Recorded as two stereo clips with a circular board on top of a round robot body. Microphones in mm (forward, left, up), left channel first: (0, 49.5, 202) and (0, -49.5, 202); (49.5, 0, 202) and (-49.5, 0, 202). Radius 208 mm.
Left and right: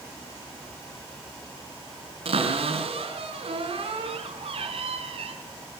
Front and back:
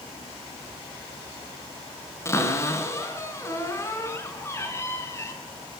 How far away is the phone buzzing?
I don't hear a phone buzzing.